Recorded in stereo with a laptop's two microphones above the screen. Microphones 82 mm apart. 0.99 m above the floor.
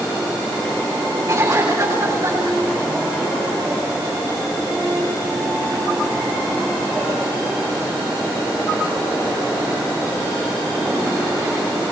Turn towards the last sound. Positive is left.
turn(degrees=-40)  # may be behind; listen again after turning